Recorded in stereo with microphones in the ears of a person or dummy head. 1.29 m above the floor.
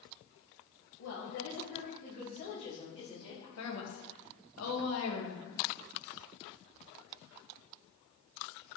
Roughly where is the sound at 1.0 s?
Left.